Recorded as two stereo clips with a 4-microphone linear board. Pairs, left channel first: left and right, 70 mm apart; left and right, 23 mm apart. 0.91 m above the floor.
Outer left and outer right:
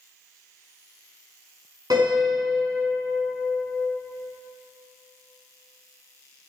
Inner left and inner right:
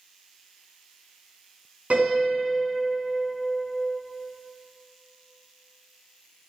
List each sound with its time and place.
1.9 s a piano: 75° right (ahead or behind), 5.5 m